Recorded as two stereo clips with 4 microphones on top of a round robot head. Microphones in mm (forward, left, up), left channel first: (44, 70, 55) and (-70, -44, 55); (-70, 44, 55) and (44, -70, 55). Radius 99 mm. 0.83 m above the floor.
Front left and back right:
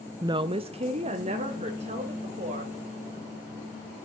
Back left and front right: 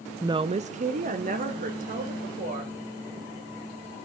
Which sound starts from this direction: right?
A woman speaking, at 0.2 s.